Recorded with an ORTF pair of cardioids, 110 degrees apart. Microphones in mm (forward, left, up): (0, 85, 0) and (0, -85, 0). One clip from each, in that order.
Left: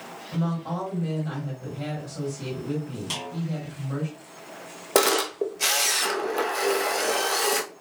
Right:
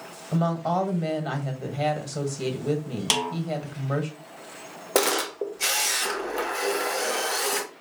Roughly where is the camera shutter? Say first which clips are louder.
Left 2 dB; ahead.